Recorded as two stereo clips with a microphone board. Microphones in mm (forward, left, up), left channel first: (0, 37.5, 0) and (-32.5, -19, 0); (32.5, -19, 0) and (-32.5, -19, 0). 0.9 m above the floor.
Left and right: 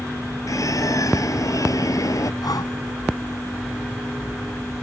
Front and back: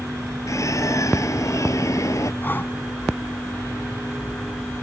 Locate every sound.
0.5 s a bird: 35° left
2.4 s breathing: 55° left